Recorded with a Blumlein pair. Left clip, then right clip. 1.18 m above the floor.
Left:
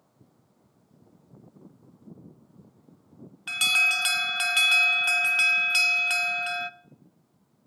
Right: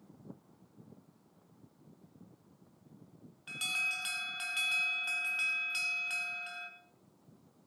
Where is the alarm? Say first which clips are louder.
Left 13 dB; 35° left, 0.6 m.